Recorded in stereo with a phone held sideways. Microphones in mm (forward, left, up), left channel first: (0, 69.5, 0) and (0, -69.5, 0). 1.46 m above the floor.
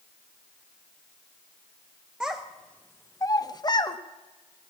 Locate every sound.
2.2 s a child speaking: 5° right (ahead or behind), 0.7 m; by 4.0 s 30° left (ahead or behind), 1.0 m